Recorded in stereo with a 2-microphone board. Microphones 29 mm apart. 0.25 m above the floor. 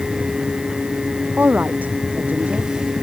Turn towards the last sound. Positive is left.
turn(degrees=-85)